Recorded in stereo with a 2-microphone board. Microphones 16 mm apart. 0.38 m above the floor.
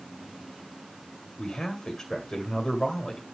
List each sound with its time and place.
1.4 s a man speaking: 40° left (ahead or behind), 2 m